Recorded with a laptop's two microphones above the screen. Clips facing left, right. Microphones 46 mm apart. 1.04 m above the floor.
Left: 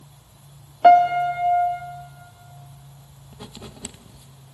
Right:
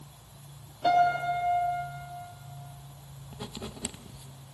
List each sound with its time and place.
0.8 s a piano: 80° left, 1.1 m
3.3 s writing: centre (ahead or behind), 0.5 m